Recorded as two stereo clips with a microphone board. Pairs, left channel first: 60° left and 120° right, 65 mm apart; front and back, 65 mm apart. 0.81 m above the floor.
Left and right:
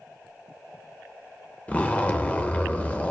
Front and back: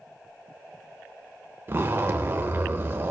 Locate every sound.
1.7 s a zipper: 125° left, 0.9 m